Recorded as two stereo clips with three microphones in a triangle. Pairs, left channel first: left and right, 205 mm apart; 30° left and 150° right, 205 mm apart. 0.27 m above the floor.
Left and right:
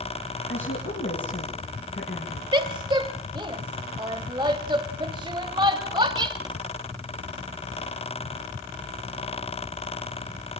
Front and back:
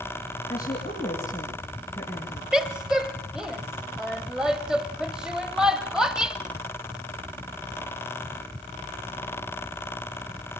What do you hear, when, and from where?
0.5 s a woman speaking: 100° left, 5 m
2.5 s a woman speaking: 70° right, 0.9 m